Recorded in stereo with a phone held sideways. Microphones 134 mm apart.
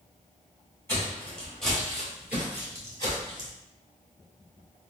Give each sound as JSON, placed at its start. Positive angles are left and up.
{"t": 0.9, "sound": "footsteps", "side_deg": 15, "distance_m": 1.6}